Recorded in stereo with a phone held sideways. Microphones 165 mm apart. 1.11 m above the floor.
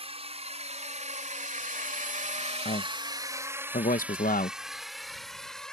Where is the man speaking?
55° left (ahead or behind).